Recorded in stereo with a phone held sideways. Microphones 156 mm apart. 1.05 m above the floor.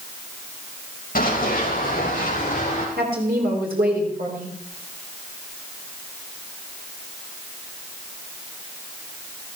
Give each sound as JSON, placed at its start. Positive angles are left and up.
{"t": 1.1, "sound": "running footsteps", "side_deg": 65, "distance_m": 4.0}
{"t": 3.0, "sound": "a woman speaking", "side_deg": -75, "distance_m": 3.5}